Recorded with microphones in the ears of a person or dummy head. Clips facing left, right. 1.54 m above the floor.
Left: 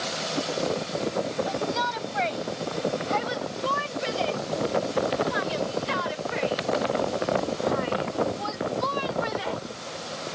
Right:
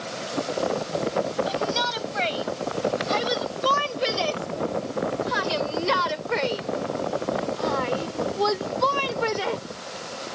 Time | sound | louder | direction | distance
1.5 | a shout | right 2 dB | 40° right (ahead or behind) | ?